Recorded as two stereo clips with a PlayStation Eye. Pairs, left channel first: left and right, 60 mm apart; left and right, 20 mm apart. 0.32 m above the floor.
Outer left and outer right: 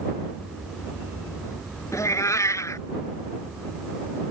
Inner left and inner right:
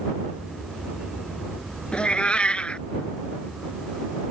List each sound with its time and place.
1.9 s a cat meowing: 65° left (ahead or behind)